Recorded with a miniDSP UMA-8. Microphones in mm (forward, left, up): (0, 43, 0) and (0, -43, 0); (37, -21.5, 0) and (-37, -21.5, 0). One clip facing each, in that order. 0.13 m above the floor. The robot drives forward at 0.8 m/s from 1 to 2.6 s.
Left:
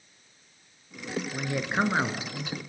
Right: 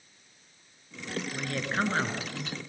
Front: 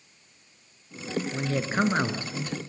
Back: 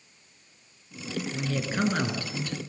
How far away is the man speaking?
About 2.0 m.